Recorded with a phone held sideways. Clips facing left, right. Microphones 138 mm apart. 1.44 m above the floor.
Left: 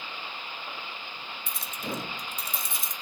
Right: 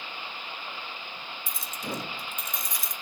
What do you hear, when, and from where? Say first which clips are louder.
1.5 s keys jangling: left 1 dB; 60° left (ahead or behind), 1.1 m; by 2.9 s 25° left (ahead or behind), 2 m